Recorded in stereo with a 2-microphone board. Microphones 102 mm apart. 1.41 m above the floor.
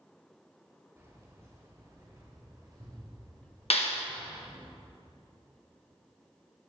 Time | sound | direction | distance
1.0 | keys jangling | 30° right (ahead or behind) | 4.5 m
3.7 | a clap | 80° left | 1.5 m